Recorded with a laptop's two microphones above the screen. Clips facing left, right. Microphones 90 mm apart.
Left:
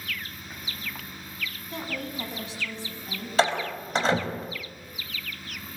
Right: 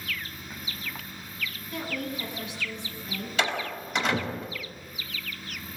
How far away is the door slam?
About 4 m.